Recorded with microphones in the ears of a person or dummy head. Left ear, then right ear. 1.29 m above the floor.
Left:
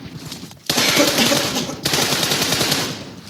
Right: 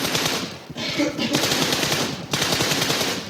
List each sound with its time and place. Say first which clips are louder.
0.8 s a cough: left 9 dB; 65° left (ahead or behind), 0.6 m